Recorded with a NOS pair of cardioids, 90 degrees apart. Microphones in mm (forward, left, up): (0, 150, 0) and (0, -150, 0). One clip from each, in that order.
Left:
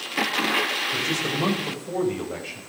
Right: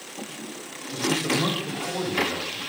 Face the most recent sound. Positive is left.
turn(degrees=20)